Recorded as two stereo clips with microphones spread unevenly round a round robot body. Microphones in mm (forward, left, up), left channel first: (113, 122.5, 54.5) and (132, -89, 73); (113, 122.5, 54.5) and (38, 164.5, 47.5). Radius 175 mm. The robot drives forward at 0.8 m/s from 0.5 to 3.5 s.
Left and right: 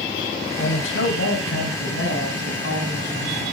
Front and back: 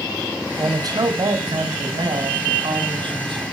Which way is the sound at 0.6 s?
110° left.